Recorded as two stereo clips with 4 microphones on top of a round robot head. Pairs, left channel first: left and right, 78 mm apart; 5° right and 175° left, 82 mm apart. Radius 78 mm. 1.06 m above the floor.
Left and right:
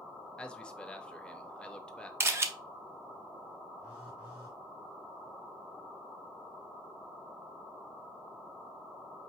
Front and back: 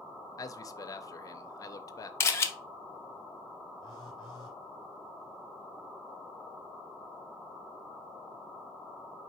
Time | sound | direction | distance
0.4 | a man speaking | 15° left | 0.7 m
2.2 | a camera shutter | 45° right | 0.8 m
3.8 | a phone buzzing | 20° right | 1.0 m